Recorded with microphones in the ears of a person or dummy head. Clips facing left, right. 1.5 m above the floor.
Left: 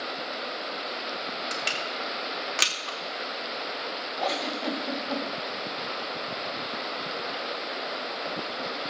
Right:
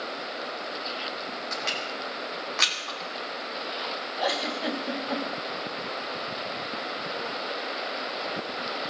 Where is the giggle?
10° right (ahead or behind), 2 m.